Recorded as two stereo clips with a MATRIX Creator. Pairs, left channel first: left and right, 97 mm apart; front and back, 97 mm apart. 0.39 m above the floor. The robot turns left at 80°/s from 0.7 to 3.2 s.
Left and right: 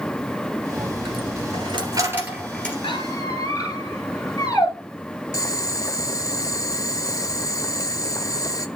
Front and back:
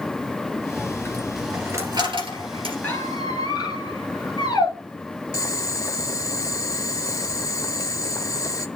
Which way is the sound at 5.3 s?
45° left.